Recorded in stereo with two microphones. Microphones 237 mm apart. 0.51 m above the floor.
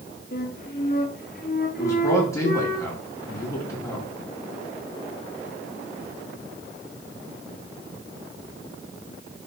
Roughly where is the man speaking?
Centre.